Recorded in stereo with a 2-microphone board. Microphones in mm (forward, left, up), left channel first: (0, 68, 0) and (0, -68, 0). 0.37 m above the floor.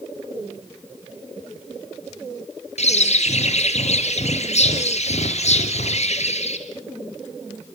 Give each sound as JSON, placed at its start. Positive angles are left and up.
{"t": 2.8, "sound": "a bird", "side_deg": 60, "distance_m": 2.5}